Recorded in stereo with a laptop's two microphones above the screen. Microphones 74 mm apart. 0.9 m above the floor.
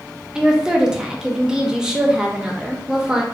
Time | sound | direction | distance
0.3 | a woman speaking | 10° right (ahead or behind) | 0.6 m